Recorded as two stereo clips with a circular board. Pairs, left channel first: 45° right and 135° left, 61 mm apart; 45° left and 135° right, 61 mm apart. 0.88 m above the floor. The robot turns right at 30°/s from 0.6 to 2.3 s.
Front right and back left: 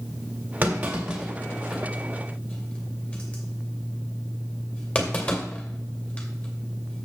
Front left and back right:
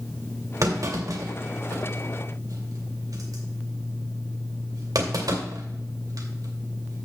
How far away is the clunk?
About 2 m.